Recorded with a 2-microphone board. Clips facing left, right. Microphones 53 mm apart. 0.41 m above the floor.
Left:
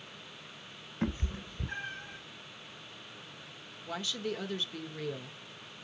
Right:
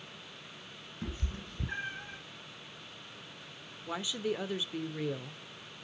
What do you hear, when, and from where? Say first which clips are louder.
1.0 s a cat meowing: left 7 dB; 50° left (ahead or behind), 0.8 m; by 2.2 s 20° right (ahead or behind), 2.0 m
3.9 s a woman speaking: right 2 dB; 15° right (ahead or behind), 0.8 m